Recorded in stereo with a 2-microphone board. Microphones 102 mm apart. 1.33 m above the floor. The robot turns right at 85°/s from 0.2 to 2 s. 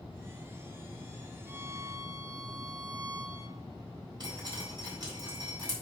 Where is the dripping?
40° right (ahead or behind), 5 m.